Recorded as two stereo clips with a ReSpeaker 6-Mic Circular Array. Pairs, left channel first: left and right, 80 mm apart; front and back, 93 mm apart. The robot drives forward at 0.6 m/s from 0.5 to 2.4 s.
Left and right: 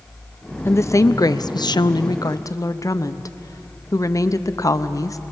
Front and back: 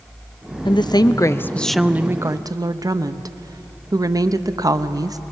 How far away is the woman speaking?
About 0.8 m.